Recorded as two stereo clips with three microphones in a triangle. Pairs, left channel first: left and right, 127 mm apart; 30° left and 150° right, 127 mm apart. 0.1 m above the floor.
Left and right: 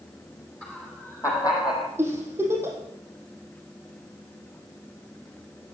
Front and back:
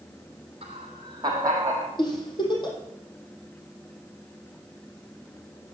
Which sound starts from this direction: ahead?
A giggle, at 2.0 s.